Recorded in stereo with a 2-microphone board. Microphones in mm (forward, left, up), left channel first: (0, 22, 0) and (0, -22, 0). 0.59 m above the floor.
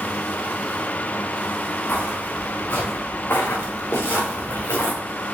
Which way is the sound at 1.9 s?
50° left (ahead or behind).